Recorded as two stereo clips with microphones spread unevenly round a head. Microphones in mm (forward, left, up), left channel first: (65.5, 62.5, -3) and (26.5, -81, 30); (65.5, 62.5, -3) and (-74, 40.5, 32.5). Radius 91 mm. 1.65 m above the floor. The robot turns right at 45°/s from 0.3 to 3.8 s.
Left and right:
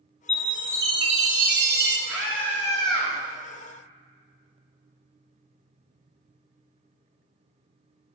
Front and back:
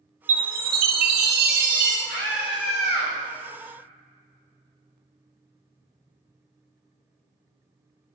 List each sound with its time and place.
0.3 s a chime: 160° left, 0.8 m; by 2.0 s 125° right, 0.8 m
2.1 s a scream: 25° right, 3.5 m; by 3.1 s 25° left, 3.5 m